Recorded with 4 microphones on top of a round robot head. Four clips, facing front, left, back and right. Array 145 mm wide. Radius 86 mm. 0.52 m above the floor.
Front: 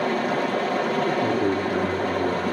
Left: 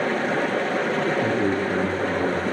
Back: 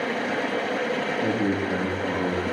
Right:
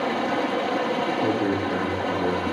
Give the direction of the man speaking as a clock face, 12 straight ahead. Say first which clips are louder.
Left 1 dB, front 2 dB; 9 o'clock.